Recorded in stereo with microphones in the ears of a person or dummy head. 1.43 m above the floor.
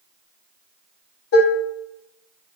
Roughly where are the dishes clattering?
Left.